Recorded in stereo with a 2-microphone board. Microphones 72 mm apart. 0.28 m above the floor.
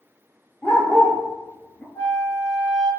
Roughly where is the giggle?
I don't hear a giggle.